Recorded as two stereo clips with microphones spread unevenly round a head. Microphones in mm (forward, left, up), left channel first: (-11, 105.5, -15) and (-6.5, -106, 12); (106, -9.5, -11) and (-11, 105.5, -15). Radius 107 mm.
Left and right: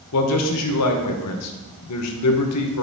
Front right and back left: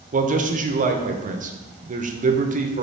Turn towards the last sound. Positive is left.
turn(degrees=95)